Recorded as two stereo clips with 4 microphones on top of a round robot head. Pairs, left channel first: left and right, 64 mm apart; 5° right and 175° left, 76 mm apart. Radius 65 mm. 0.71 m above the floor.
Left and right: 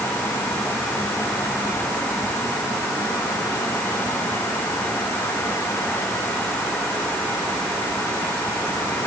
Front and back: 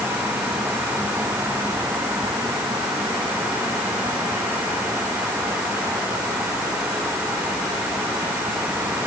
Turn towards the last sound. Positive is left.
No sound to turn to.